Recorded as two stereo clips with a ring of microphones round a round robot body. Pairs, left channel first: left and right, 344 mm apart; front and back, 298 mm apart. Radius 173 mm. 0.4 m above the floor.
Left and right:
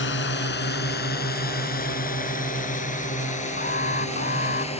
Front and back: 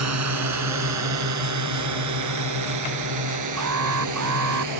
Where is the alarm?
155° left.